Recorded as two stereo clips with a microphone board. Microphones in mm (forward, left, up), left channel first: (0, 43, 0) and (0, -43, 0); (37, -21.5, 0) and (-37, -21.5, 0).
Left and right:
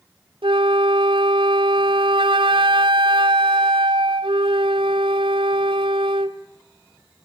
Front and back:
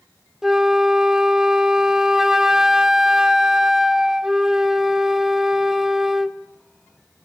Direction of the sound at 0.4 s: 95° right.